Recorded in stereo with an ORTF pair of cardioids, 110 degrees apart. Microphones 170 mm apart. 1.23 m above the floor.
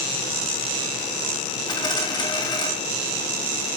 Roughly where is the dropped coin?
Ahead left.